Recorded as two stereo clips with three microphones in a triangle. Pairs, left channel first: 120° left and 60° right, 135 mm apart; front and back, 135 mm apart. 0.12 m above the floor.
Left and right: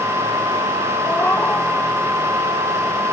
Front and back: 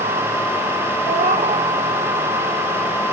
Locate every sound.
1.1 s a cat meowing: 170° right, 1.6 m